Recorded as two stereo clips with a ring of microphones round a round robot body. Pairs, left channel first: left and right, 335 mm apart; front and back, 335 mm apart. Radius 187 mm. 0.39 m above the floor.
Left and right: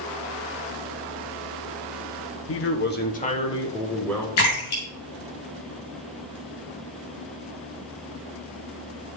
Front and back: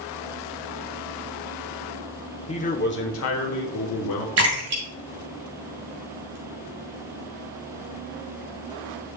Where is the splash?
135° left, 3.5 m.